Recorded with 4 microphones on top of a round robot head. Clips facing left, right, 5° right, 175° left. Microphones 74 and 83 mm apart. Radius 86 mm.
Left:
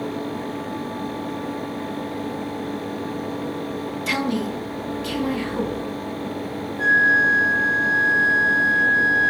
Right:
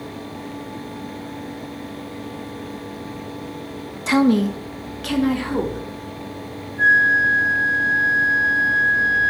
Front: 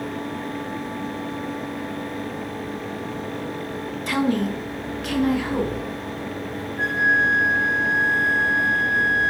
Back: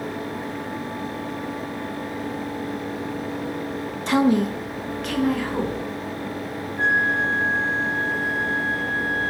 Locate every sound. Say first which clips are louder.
4.1 s a woman speaking: right 9 dB, back 3 dB; 140° right, 0.6 m; by 5.9 s 85° right, 2.0 m
6.8 s a flute: right 2 dB, front 1 dB; 45° right, 4 m